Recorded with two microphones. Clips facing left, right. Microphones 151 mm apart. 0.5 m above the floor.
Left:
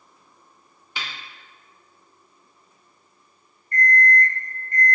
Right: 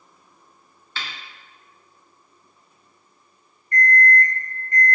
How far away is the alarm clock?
About 1.7 m.